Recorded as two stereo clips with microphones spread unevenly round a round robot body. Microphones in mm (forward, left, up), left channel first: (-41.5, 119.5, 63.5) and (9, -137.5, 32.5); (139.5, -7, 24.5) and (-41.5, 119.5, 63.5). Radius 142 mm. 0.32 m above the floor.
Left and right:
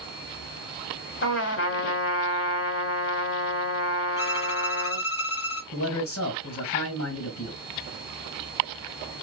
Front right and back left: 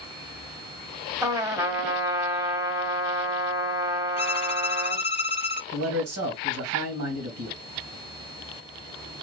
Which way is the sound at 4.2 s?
25° left.